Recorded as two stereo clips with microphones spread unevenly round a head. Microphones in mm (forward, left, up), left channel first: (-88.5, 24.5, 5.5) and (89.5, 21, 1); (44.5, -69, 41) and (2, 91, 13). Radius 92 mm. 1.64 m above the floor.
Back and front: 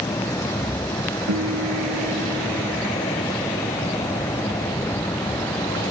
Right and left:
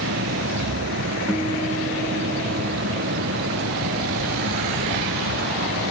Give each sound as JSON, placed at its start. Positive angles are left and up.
{"t": 0.0, "sound": "a fan", "azimuth_deg": 105}
{"t": 1.3, "sound": "a guitar", "azimuth_deg": 15}